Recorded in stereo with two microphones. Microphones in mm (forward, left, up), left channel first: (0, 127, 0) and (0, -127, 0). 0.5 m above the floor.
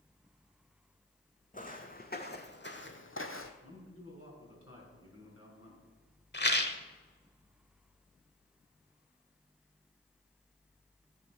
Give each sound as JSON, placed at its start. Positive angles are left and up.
{"t": 1.5, "sound": "footsteps", "side_deg": 30, "distance_m": 1.8}
{"t": 3.6, "sound": "a man speaking", "side_deg": 60, "distance_m": 4.5}
{"t": 6.3, "sound": "a rattle", "side_deg": 45, "distance_m": 1.1}